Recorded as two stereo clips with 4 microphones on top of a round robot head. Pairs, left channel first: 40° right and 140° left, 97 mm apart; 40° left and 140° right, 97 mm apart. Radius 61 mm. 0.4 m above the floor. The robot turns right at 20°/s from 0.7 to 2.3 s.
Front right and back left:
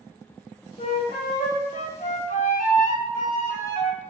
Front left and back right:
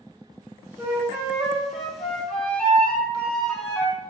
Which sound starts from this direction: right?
A flute, at 0.8 s.